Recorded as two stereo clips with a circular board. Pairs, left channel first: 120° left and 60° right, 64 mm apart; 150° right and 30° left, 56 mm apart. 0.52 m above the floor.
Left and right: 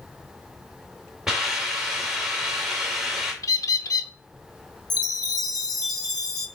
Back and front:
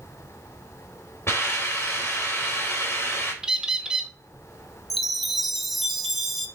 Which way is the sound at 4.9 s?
115° left.